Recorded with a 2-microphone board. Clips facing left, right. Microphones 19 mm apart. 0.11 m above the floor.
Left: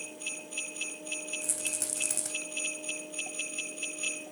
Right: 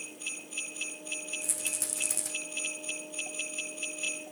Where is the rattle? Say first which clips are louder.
Even; 10° left (ahead or behind), 3 m.